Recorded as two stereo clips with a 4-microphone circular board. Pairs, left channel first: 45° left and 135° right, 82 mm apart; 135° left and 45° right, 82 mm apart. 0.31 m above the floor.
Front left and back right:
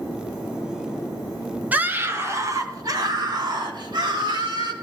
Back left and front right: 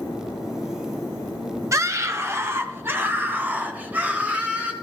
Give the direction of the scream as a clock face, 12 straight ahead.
2 o'clock.